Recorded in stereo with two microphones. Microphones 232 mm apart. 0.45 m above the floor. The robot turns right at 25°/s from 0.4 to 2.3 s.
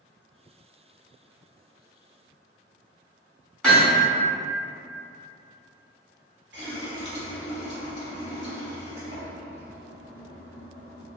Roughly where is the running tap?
Right.